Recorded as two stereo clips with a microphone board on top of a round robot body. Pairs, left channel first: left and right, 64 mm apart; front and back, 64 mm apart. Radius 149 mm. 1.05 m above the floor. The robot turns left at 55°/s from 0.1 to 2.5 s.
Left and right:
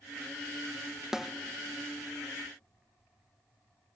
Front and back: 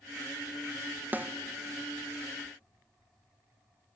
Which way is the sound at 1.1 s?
165° right.